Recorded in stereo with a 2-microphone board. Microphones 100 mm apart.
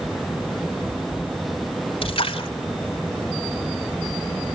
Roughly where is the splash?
Left.